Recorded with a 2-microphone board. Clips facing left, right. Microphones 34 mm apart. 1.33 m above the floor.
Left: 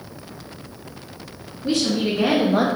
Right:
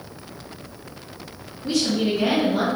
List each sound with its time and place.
1.6 s a woman speaking: 35° left (ahead or behind), 1.7 m; by 2.7 s 80° left, 0.5 m